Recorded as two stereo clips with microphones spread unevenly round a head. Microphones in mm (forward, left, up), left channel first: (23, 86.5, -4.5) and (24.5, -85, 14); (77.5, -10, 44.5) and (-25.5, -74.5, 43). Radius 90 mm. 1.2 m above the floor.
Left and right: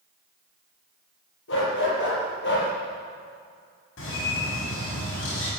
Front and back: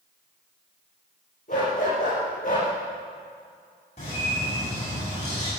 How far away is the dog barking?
About 7 m.